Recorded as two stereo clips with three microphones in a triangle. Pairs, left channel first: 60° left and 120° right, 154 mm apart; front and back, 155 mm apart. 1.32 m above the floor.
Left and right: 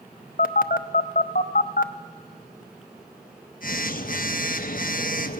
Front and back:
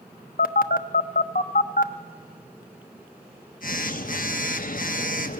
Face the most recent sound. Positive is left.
turn(degrees=30)